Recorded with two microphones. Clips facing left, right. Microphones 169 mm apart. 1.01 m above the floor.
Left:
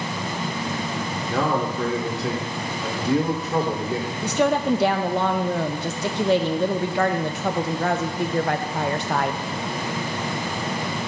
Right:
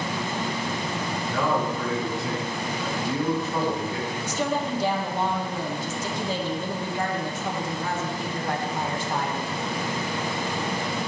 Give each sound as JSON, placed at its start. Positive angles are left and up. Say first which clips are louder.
{"t": 1.3, "sound": "a man speaking", "louder": "left 2 dB", "side_deg": 70, "distance_m": 1.9}
{"t": 4.2, "sound": "a woman speaking", "louder": "left 8 dB", "side_deg": 65, "distance_m": 0.6}